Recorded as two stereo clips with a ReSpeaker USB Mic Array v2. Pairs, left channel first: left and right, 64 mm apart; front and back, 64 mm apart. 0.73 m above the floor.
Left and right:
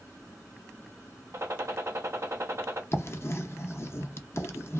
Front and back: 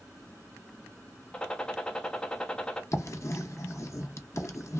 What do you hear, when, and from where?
1.3 s a gunshot: 70° right, 0.6 m
2.9 s writing: 40° left, 0.5 m